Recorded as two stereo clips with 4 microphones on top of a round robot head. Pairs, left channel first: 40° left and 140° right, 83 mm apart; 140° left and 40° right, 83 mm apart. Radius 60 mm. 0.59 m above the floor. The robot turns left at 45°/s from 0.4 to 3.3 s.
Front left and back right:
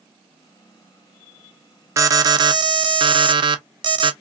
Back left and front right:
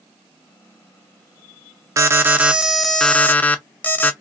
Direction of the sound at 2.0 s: 90° right.